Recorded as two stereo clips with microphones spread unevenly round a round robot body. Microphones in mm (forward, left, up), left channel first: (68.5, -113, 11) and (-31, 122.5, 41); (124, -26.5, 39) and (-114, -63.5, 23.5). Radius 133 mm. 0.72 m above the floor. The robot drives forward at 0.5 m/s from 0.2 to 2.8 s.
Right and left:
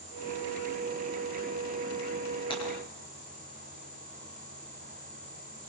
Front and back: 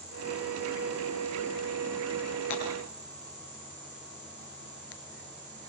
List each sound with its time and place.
2.5 s breaking glass: 5° left, 8 m